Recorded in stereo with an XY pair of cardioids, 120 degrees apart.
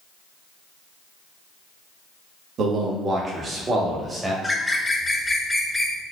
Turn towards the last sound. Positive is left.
turn(degrees=15)